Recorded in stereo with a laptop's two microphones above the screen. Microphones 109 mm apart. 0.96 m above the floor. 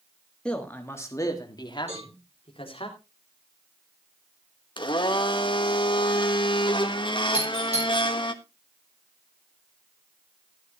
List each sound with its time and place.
0.5 s a man speaking: 5° left (ahead or behind), 1.7 m; by 2.9 s 60° left (ahead or behind), 3 m
1.9 s a cowbell: 85° right, 9 m
4.8 s a blender: 50° left (ahead or behind), 1.3 m
7.3 s a doorbell: 70° right (ahead or behind), 8.5 m